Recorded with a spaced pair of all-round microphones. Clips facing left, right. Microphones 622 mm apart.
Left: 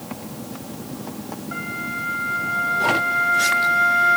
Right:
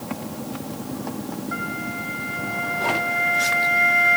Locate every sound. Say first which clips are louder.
1.5 s a flute: right 2 dB; 60° left (ahead or behind), 4 m